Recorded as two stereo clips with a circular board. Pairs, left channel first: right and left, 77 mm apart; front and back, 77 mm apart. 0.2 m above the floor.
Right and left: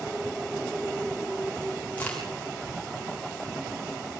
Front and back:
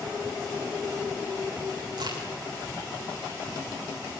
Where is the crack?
160° right, 8 m.